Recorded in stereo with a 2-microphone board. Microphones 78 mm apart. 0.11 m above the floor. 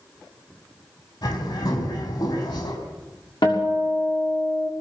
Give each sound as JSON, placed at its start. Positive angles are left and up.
{"t": 1.2, "sound": "a bird", "side_deg": 65, "distance_m": 4.5}
{"t": 3.4, "sound": "a guitar", "side_deg": 75, "distance_m": 6.5}